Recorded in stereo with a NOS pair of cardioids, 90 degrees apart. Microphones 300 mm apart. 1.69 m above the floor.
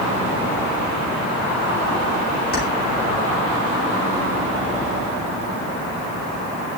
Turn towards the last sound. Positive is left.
turn(degrees=30)